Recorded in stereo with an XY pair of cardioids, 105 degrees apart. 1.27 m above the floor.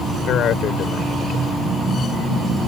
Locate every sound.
0.3 s a man speaking: 70° left